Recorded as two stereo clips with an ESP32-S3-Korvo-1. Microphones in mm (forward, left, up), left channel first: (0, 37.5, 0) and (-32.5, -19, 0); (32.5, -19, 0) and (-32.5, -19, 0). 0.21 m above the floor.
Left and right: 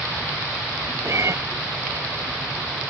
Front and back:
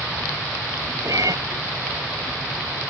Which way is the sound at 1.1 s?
160° right.